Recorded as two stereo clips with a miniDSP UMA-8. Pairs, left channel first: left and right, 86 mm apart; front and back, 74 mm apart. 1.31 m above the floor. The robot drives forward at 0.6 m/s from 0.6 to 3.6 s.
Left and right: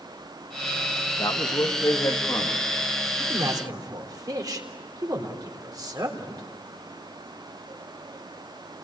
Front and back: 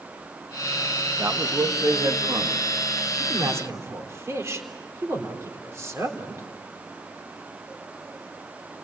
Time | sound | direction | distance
1.2 | a man speaking | 130° left | 1.8 m
3.2 | a man speaking | 125° right | 3.5 m